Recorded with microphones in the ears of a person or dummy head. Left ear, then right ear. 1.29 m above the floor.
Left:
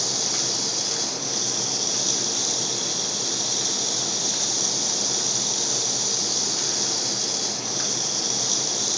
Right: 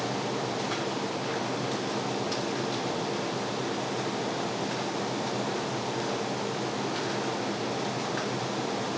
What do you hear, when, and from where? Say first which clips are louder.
0.0 s running water: left 6 dB; 85° left